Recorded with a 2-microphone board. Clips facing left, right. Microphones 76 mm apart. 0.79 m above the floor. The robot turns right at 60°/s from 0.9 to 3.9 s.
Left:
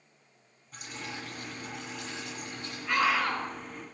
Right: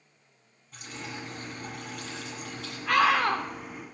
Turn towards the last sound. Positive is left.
turn(degrees=-25)